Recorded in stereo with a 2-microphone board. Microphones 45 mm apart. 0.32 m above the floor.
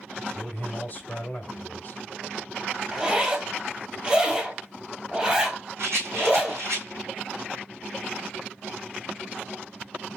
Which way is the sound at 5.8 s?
70° right (ahead or behind).